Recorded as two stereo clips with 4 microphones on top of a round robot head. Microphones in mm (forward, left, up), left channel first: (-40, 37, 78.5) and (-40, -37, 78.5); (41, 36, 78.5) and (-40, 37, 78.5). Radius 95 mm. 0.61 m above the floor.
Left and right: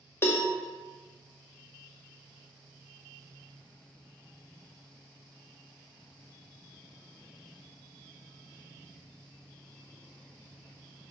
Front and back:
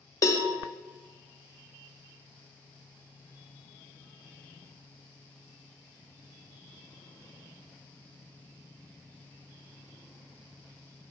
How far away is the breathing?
I don't hear breathing.